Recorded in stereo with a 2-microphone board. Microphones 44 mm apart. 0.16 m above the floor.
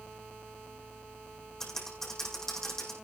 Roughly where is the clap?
I don't hear a clap.